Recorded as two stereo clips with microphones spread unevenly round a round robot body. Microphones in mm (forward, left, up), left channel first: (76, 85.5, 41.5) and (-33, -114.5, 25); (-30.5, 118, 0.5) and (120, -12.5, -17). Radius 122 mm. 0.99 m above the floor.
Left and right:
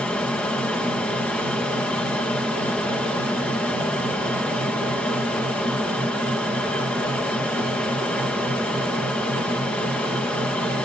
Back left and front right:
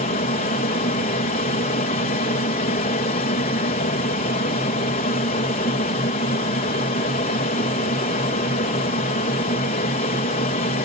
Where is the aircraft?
145° left.